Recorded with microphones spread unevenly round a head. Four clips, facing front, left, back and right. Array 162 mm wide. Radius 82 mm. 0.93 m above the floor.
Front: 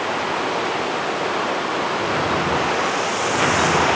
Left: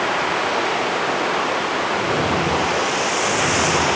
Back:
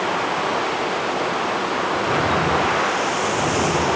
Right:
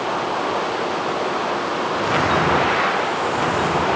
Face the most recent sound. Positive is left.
No sound to turn to.